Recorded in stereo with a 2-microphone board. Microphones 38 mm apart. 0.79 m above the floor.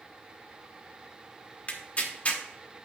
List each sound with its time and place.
1.7 s tearing paper: 35° left (ahead or behind), 1.1 m